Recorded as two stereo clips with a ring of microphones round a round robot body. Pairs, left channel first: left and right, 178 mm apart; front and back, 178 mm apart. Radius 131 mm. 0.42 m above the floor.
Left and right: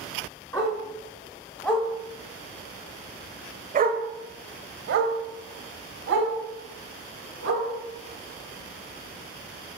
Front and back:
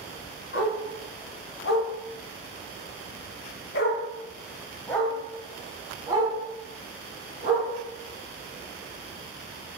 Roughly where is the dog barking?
Ahead.